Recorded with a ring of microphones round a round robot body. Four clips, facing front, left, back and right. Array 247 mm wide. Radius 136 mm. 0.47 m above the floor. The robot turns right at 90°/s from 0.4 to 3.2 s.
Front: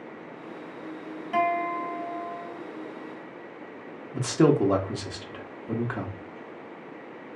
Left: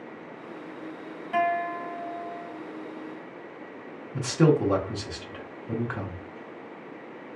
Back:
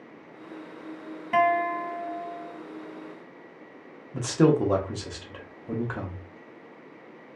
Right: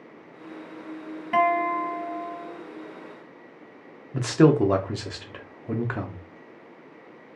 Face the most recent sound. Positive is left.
turn(degrees=-80)